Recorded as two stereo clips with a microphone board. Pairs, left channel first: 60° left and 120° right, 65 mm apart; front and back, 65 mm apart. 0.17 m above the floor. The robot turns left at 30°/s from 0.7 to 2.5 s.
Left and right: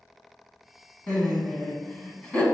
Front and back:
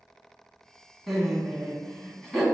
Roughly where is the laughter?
Left.